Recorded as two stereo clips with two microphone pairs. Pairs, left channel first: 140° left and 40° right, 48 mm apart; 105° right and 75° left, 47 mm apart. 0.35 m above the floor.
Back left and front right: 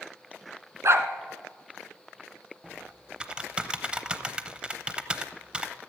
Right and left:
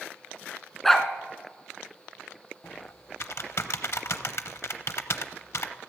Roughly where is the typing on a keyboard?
Right.